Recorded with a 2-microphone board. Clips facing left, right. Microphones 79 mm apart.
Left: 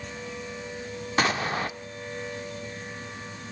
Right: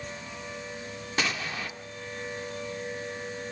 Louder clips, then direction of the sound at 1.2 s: Left 6 dB; 45° left (ahead or behind).